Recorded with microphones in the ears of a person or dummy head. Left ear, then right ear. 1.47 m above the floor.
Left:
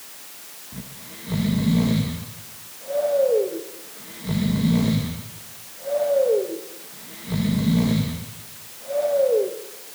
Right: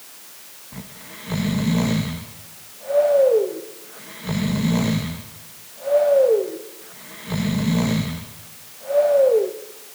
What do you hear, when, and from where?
0.7 s snoring: 35° right (ahead or behind), 1.2 m